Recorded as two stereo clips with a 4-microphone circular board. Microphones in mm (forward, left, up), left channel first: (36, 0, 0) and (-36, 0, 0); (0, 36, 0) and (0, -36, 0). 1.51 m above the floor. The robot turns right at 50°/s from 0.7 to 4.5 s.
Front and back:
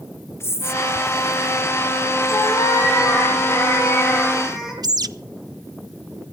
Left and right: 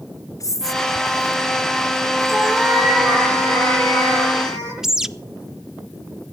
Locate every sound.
0.4 s whispering: 55° left, 0.7 m; by 2.7 s 155° left, 0.7 m
2.3 s a cat meowing: 20° right, 6 m; by 4.7 s 90° left, 6 m
4.8 s a bird: 170° right, 0.6 m